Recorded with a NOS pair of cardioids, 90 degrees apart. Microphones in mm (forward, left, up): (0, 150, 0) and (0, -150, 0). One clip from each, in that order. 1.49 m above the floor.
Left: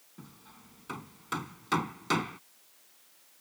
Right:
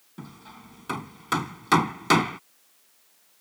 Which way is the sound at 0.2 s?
65° right.